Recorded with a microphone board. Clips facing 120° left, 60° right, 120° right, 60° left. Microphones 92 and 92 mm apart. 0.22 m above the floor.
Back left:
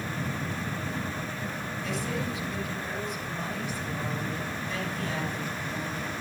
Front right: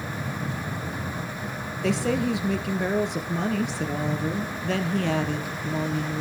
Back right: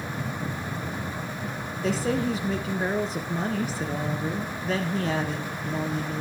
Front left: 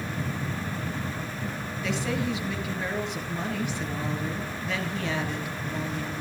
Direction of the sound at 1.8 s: 70° right.